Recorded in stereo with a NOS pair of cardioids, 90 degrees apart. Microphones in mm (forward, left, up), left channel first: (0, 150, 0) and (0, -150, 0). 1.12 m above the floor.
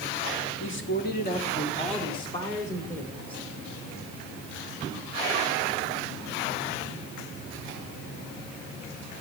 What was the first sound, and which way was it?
A man speaking, 40° left.